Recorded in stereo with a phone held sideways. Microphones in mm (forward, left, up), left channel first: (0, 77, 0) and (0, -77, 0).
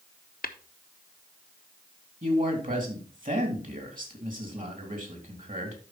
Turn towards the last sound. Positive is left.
turn(degrees=-60)  # may be behind; listen again after turning